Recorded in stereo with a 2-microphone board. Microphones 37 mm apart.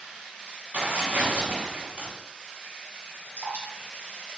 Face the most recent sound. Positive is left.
turn(degrees=-50)  # may be behind; listen again after turning